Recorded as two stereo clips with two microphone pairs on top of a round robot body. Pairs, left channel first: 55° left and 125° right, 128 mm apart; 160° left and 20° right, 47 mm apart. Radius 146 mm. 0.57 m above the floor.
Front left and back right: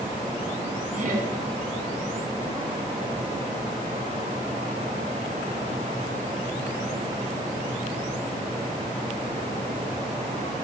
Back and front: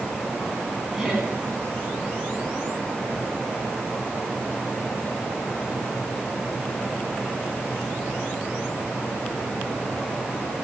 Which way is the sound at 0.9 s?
105° right.